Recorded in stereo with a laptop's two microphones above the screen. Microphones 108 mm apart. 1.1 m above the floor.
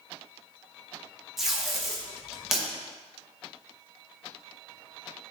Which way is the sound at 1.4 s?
5° right (ahead or behind).